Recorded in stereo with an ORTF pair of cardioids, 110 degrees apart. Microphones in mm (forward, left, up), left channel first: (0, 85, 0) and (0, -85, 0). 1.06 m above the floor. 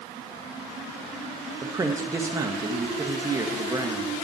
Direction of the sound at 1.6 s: 20° right.